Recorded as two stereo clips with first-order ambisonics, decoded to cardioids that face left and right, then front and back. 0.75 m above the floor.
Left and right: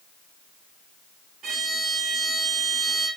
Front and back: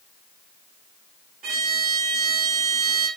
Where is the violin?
140° right, 0.8 m.